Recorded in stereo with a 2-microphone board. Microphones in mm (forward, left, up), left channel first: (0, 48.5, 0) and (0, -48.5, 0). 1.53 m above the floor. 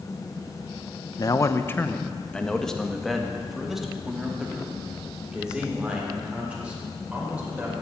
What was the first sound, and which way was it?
A man speaking, 40° left (ahead or behind).